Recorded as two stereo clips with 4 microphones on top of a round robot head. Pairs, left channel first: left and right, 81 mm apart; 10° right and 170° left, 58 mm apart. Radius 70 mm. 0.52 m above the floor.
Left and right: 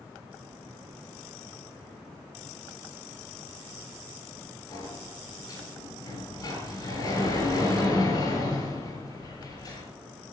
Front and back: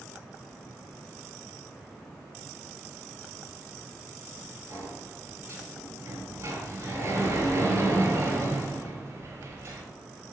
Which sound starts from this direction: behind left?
A sliding door, at 4.7 s.